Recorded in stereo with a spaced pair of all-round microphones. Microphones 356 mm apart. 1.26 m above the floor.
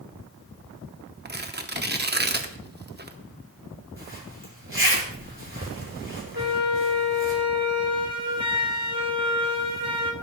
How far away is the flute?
About 1.7 m.